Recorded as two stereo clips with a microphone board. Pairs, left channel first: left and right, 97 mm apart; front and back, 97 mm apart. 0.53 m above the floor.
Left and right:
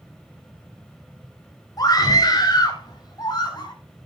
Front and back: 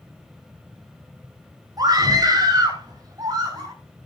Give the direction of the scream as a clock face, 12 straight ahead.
8 o'clock.